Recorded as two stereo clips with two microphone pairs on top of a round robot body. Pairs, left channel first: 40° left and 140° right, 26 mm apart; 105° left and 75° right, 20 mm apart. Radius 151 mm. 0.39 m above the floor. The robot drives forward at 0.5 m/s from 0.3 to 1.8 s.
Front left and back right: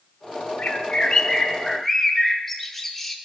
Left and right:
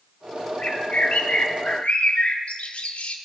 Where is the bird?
70° left, 1.0 m; by 3.2 s 110° left, 1.0 m.